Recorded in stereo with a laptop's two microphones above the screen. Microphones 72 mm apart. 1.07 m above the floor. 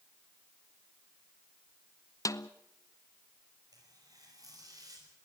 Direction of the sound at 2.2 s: 50° left (ahead or behind).